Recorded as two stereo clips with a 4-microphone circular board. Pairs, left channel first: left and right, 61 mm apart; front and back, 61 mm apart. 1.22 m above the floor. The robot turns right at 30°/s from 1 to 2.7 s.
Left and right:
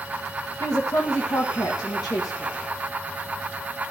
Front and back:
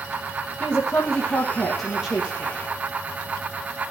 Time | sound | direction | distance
0.6 | a woman speaking | 65° left | 1.7 m